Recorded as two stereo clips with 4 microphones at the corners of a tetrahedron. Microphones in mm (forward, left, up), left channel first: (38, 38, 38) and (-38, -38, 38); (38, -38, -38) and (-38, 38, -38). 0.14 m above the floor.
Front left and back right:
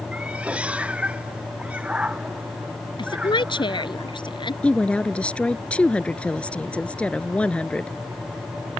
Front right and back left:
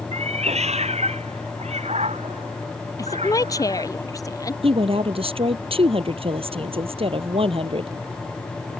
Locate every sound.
0.1 s a cat meowing: 145° left
3.0 s a woman speaking: 10° left
4.6 s a woman speaking: 120° left